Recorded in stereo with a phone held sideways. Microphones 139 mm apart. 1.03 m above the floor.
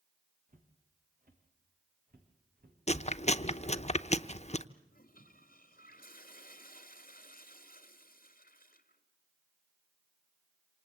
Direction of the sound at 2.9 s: 50° left (ahead or behind).